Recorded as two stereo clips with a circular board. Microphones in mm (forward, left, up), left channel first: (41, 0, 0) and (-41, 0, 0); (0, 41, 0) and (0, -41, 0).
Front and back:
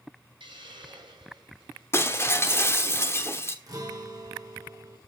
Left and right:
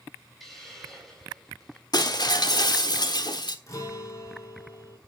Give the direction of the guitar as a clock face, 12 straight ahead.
7 o'clock.